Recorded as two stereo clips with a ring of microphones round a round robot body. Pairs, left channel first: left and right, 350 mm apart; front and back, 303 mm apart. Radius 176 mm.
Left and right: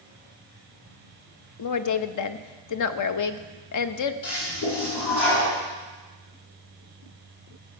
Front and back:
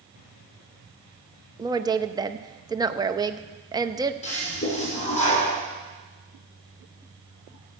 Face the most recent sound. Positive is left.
turn(degrees=65)